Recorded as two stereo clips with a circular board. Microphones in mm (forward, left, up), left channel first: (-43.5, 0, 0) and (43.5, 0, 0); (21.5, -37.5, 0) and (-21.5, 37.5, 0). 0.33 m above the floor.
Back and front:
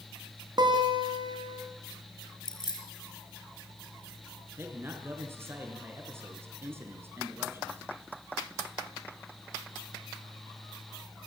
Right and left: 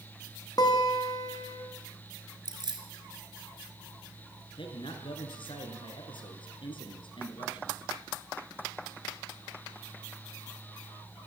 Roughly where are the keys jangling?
Behind left.